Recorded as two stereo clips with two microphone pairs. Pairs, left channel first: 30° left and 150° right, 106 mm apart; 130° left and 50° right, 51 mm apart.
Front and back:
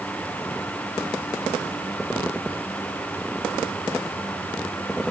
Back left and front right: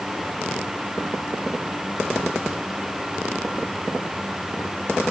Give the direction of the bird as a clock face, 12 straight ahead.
I don't hear a bird.